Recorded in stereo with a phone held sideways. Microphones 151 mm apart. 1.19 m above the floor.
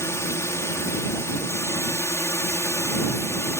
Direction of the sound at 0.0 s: 20° left (ahead or behind).